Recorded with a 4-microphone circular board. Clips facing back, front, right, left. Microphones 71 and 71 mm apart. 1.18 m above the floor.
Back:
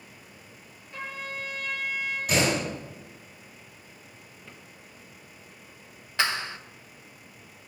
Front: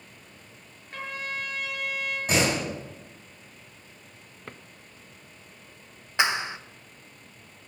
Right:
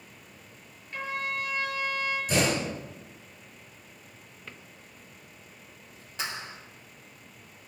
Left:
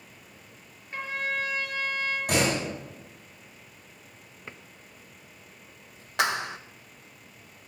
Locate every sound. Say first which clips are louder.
0.9 s a trumpet: front 2 dB, left 2 dB; 30° left, 7.5 m
2.3 s a door slam: even, left 1 dB; 60° left, 8.5 m
4.5 s a drawer: front 7 dB, left 2 dB; 25° left, 0.6 m
6.2 s a clap: front 3 dB, left 10 dB; 70° left, 0.6 m